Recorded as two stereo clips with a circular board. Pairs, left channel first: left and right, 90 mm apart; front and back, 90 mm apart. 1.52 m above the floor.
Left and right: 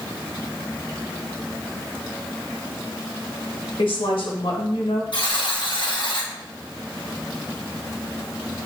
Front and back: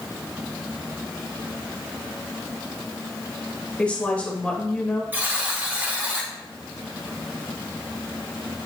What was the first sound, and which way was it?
A woman speaking, 75° left.